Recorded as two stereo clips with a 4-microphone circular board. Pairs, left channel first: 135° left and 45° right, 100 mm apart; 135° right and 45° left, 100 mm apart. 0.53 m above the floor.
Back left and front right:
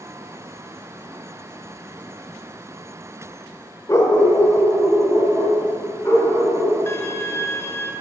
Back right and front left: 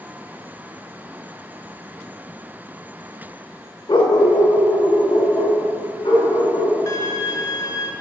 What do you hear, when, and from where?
3.9 s a dog barking: 170° right, 0.7 m; by 6.8 s 165° right, 3 m
6.9 s a violin: 170° right, 0.6 m